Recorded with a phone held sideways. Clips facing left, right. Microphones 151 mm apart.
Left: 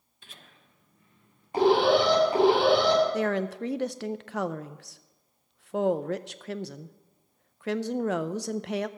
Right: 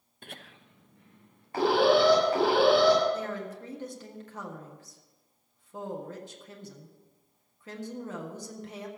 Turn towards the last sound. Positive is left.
turn(degrees=75)  # may be behind; listen again after turning